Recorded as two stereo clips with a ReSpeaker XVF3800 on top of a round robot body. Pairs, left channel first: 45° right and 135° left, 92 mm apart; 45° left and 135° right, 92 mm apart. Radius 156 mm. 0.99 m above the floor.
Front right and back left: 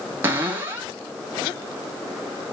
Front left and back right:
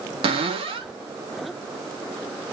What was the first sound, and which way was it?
A cupboard door, 155° right.